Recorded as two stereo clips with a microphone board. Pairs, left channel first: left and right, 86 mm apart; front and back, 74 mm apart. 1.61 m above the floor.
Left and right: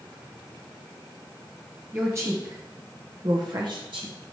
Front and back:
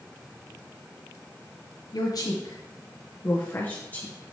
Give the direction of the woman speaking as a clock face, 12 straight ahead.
1 o'clock.